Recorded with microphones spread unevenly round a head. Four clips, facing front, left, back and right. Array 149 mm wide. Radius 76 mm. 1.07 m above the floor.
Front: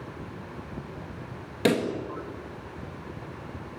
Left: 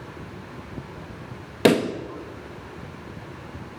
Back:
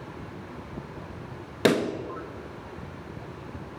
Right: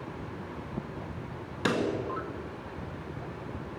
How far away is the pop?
About 1.9 m.